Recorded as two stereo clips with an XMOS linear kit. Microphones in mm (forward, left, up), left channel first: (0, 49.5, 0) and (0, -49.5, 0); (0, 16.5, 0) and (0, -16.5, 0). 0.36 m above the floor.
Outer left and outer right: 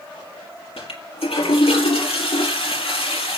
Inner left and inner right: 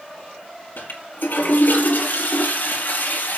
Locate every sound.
0.8 s a toilet flushing: 80° left, 4.5 m